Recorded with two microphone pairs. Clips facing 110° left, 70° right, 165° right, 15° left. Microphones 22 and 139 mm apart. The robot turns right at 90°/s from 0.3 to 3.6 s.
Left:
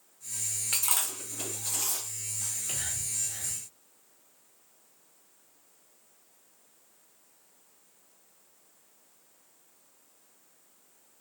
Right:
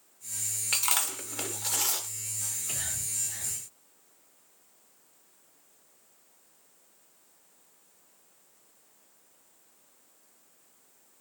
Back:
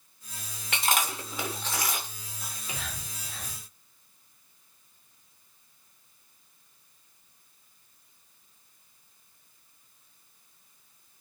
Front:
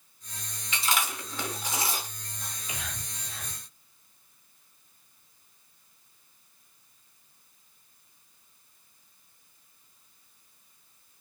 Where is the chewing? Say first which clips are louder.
Right 3 dB, back 2 dB; 145° right, 0.6 m; by 2.1 s 25° right, 0.6 m.